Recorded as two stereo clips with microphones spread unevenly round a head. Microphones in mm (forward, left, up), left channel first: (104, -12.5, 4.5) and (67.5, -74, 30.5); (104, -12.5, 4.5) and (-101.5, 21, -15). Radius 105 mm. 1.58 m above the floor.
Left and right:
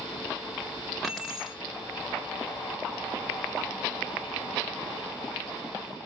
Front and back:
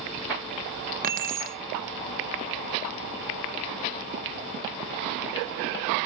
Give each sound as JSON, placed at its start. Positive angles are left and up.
{"t": 1.0, "sound": "keys jangling", "azimuth_deg": -175, "distance_m": 0.9}